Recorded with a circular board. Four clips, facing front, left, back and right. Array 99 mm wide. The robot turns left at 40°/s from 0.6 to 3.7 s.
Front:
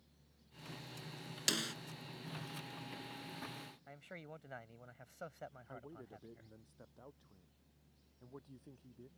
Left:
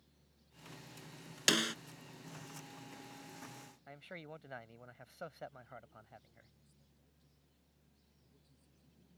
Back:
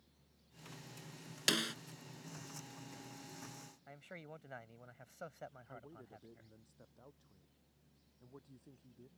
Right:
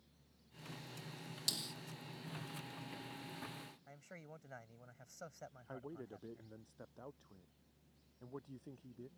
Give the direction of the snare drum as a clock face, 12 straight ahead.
9 o'clock.